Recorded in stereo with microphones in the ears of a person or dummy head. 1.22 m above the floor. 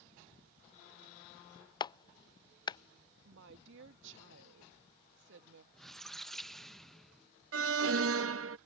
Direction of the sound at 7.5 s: 70° right (ahead or behind).